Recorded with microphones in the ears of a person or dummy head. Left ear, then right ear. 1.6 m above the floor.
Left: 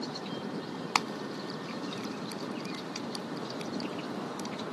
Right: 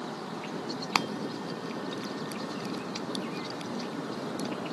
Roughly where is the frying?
Centre.